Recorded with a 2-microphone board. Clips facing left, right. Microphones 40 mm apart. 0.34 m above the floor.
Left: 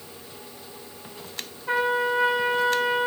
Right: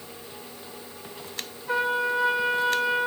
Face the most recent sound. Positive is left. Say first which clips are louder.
# left 2 dB
turn(degrees=40)  # may be behind; listen again after turning